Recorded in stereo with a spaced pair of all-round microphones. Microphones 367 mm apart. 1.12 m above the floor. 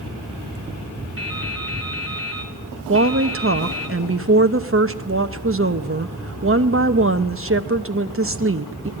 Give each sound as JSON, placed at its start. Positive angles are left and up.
{"t": 1.2, "sound": "dripping", "side_deg": -35, "distance_m": 3.5}
{"t": 2.9, "sound": "a woman speaking", "side_deg": -35, "distance_m": 0.9}